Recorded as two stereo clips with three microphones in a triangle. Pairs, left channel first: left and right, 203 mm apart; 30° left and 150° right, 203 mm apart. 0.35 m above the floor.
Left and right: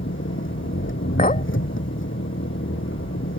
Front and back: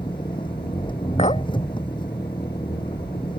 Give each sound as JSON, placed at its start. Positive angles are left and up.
{"t": 0.0, "sound": "an engine running", "azimuth_deg": 95}
{"t": 1.2, "sound": "a clink", "azimuth_deg": 70}